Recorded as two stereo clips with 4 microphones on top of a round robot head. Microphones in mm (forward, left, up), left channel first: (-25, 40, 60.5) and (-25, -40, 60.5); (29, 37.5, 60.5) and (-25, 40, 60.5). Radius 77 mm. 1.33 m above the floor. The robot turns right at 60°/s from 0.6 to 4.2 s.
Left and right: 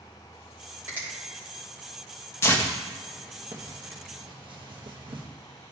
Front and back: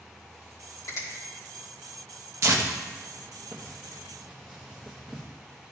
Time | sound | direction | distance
0.9 | a finger snap | 25° right | 3 m
2.4 | tearing paper | 145° left | 0.8 m